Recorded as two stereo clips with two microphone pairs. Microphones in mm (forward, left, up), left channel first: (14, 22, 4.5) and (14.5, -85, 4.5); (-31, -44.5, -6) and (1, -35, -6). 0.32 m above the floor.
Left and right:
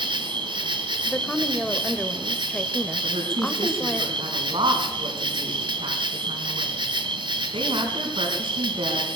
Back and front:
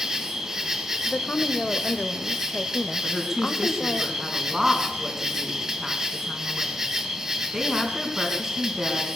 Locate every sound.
0.0 s an insect: 55° right, 1.3 m
1.1 s a woman speaking: 170° left, 1.0 m
3.0 s a woman speaking: 60° right, 3.5 m